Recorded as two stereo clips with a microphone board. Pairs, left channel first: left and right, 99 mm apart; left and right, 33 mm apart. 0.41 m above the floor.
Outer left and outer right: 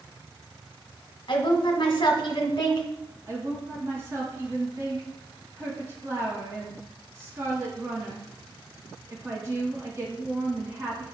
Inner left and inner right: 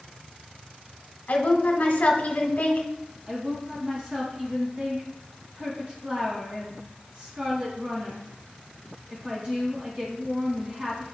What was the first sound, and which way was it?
A woman speaking, 55° left (ahead or behind).